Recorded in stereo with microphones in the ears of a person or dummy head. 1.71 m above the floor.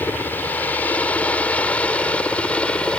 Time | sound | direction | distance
0.0 | a helicopter | 5° left (ahead or behind) | ?